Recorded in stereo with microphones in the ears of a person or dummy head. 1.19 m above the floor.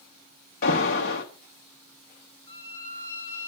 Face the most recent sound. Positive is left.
turn(degrees=25)  # may be behind; listen again after turning